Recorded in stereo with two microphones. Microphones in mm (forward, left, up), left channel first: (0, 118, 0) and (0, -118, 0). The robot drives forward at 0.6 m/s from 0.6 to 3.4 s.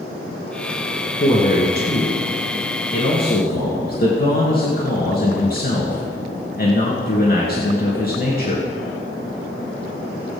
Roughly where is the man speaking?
Left.